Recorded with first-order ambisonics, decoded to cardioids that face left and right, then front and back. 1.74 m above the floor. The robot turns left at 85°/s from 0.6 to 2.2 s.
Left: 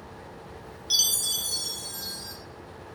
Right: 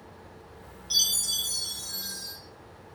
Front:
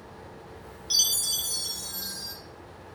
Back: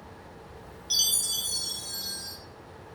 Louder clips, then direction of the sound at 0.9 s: Left 1 dB, front 1 dB; 90° left.